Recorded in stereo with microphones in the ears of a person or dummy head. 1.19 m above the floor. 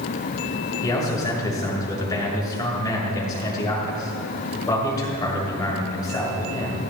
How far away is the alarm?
No alarm in this recording.